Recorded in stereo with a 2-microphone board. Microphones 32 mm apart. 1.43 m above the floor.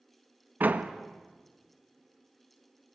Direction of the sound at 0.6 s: 60° right (ahead or behind).